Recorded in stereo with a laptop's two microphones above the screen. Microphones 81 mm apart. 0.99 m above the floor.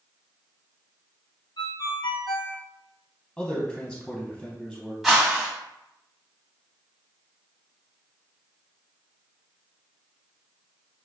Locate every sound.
1.6 s a ringtone: 70° left (ahead or behind), 0.8 m
3.4 s a man speaking: 5° left (ahead or behind), 0.8 m
5.0 s a whoosh: centre (ahead or behind), 2 m